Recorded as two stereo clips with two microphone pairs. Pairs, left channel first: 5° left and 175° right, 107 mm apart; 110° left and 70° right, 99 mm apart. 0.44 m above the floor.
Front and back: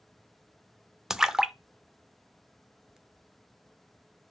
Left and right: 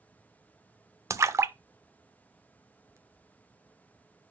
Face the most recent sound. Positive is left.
turn(degrees=-90)